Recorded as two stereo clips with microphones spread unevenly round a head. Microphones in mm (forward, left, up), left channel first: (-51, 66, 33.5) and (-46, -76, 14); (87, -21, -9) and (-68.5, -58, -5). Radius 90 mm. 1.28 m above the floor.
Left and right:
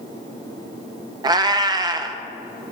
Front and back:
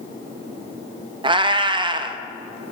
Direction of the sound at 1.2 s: 140° right.